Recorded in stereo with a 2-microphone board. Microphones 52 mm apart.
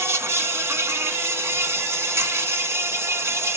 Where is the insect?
60° right (ahead or behind), 0.7 m.